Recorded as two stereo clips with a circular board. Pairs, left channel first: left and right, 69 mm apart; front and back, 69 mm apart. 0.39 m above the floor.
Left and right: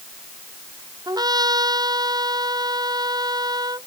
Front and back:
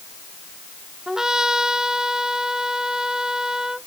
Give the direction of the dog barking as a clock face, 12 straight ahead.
I don't hear a dog barking.